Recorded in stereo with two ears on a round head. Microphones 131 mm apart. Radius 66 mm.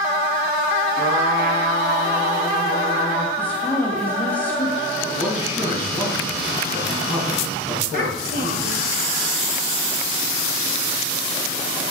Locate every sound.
1.0 s a trumpet: 75° right (ahead or behind), 4.5 m
3.4 s a woman speaking: 10° left (ahead or behind), 2 m
5.0 s a man speaking: 20° right (ahead or behind), 4.5 m
7.9 s a child speaking: 60° right (ahead or behind), 1.9 m